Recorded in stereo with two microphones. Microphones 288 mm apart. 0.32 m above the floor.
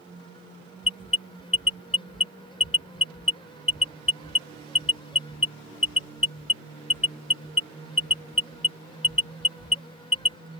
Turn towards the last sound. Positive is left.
turn(degrees=55)  # may be behind; listen again after turning